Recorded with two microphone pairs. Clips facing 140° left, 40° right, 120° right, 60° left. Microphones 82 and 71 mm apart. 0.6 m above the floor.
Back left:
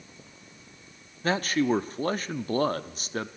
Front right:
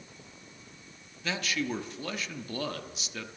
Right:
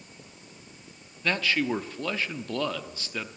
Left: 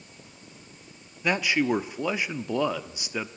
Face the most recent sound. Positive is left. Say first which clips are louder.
# back left 8 dB, left 2 dB
turn(degrees=130)